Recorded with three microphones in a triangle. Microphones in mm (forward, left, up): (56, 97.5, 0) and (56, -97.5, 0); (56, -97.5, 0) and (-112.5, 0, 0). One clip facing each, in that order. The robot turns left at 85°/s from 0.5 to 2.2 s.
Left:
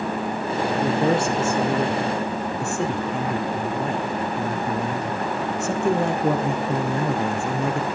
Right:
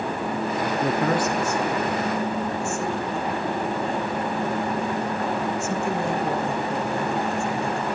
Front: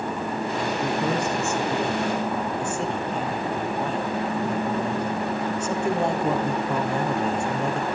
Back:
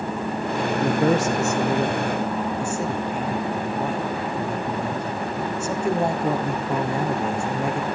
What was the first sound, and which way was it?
A man speaking, 175° right.